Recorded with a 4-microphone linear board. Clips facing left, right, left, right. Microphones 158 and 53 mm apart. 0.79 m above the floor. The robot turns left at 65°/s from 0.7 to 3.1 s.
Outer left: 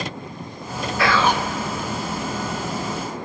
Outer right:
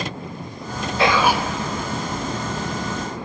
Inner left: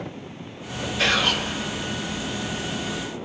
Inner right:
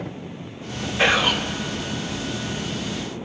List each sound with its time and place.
1.0 s whispering: 150° right, 0.5 m; by 1.5 s straight behind, 0.5 m